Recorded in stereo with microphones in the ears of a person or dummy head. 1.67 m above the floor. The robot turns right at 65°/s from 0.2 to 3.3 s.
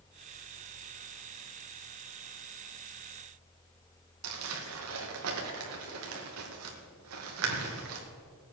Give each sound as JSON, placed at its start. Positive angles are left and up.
{"t": 4.2, "sound": "crumpling", "side_deg": -80, "distance_m": 2.0}